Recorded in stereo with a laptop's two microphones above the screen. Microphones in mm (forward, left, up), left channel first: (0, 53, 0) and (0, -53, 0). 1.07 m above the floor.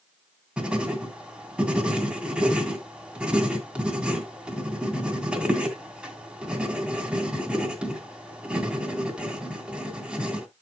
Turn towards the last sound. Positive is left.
turn(degrees=-10)  # may be behind; listen again after turning